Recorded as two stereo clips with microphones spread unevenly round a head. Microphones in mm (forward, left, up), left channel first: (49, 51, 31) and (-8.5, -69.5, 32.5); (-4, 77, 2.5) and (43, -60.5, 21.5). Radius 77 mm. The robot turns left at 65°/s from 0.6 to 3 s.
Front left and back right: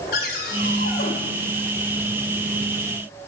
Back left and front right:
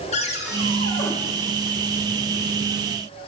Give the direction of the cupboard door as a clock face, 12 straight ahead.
10 o'clock.